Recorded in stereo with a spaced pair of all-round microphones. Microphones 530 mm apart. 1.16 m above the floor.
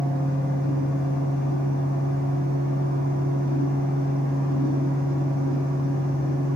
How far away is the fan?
About 1.4 m.